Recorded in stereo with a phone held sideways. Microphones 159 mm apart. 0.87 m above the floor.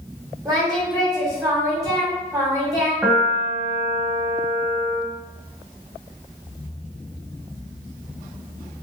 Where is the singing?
20° right (ahead or behind), 1.1 m.